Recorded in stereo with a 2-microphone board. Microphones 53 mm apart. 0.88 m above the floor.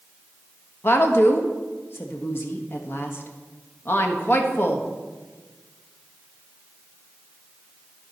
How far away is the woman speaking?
About 1.2 m.